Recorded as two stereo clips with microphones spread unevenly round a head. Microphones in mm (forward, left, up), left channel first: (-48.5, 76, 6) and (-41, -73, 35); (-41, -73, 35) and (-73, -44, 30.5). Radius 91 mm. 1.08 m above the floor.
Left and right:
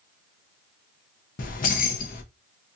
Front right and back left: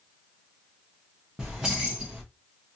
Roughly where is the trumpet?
I don't hear a trumpet.